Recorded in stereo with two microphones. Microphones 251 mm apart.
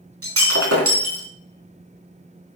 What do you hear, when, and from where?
0.2 s breaking glass: 65° right (ahead or behind), 4 m